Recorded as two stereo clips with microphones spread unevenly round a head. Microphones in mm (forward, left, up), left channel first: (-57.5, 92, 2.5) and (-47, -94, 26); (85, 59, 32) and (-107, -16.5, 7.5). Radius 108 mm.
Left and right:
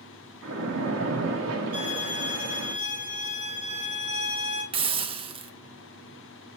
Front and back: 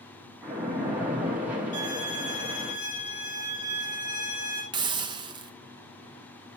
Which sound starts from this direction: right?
A splash, at 0.4 s.